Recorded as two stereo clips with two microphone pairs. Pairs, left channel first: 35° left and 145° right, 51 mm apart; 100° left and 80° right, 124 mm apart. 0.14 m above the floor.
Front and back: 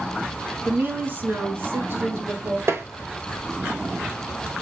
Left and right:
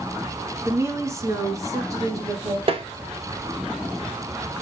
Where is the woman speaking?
135° right, 1.5 m; by 2.6 s 140° right, 2.5 m.